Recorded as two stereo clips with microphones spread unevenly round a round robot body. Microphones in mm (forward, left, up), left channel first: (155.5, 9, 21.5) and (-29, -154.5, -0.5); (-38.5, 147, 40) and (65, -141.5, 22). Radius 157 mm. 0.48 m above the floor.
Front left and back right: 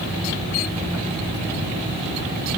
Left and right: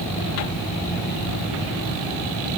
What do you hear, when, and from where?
Only background noise.